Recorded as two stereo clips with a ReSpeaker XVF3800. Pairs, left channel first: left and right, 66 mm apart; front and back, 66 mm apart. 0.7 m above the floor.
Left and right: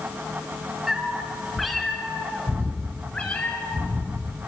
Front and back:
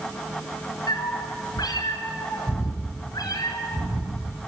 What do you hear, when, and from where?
0.9 s a cat meowing: 5° right, 3.5 m; by 4.3 s 25° left, 3.5 m